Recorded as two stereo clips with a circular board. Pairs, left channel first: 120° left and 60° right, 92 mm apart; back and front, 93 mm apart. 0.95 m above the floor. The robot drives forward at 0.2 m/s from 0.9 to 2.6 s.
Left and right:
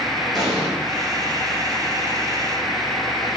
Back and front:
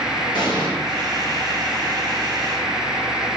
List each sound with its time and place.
0.3 s an explosion: 150° right, 1.9 m